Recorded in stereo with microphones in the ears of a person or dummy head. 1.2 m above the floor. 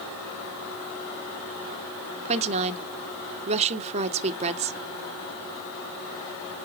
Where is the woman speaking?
40° right (ahead or behind), 0.7 m.